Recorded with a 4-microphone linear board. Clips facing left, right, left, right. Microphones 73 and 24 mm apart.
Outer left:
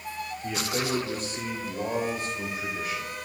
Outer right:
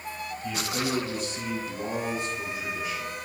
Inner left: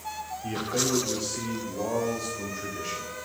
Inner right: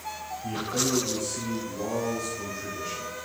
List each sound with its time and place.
0.4 s a man speaking: 40° left (ahead or behind), 2.5 m; by 3.2 s 55° left (ahead or behind), 5 m